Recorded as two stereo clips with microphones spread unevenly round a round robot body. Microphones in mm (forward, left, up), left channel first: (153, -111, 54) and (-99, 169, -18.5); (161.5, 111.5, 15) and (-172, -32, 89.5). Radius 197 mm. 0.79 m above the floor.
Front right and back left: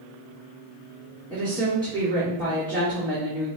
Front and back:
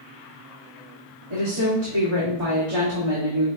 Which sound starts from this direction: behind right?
A woman speaking, at 1.3 s.